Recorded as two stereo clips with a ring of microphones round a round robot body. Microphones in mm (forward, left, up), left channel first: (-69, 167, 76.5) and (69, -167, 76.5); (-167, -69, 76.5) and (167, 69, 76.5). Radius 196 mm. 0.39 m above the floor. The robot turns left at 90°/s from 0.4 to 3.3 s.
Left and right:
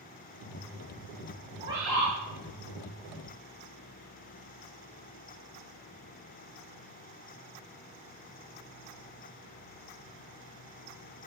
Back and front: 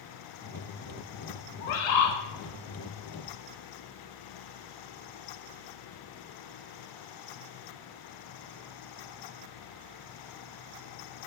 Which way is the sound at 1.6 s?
135° right.